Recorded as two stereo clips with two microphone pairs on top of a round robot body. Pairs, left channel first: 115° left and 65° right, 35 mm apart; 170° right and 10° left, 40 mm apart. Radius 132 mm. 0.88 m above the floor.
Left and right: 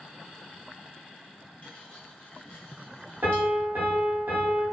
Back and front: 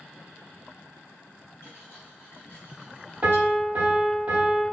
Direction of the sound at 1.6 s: 165° left.